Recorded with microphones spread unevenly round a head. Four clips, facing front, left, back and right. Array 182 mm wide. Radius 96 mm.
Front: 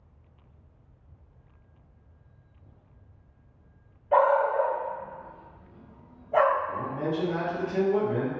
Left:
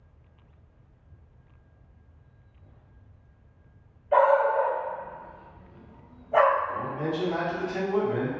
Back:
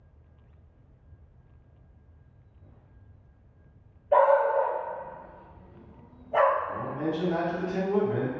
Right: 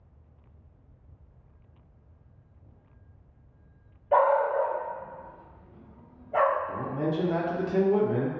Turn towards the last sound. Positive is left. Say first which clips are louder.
# even, even
turn(degrees=-85)